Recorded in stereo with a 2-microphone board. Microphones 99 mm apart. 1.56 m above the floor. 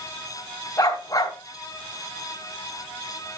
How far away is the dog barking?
About 3 m.